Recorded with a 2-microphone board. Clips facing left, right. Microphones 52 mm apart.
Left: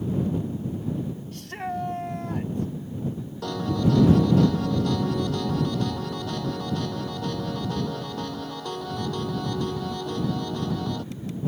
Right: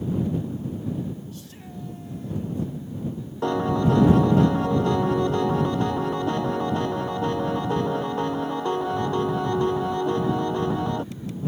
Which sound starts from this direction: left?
A shout, at 1.3 s.